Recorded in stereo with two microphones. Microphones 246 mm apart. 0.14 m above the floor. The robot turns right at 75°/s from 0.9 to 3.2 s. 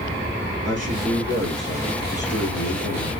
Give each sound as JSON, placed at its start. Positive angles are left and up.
{"t": 0.7, "sound": "a man speaking", "azimuth_deg": -50, "distance_m": 5.0}